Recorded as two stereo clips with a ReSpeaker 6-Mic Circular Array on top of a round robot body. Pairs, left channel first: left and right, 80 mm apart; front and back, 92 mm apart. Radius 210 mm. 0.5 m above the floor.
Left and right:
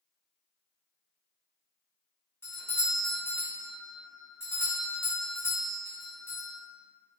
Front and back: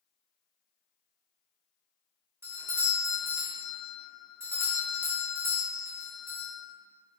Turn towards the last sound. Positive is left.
turn(degrees=130)